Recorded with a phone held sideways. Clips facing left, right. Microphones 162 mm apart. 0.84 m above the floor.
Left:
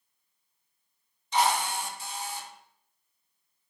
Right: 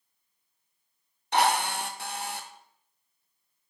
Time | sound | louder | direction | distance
1.3 | a drill | right 1 dB | 65° right (ahead or behind) | 0.9 m